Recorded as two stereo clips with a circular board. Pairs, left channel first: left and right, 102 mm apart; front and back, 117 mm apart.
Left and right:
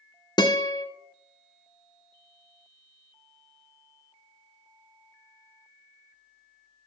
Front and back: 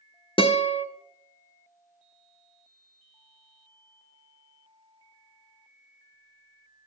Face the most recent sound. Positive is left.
turn(degrees=40)